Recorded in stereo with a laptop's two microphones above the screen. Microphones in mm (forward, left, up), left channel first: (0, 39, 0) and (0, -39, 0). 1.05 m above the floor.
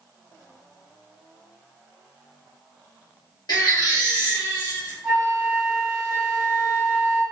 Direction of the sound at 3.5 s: 60° left (ahead or behind).